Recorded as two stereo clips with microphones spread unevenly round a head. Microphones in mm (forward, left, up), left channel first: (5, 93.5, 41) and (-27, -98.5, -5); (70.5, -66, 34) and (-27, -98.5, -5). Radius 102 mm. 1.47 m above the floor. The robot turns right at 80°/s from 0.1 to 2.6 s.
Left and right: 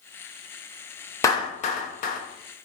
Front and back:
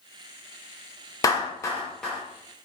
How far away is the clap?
About 0.5 m.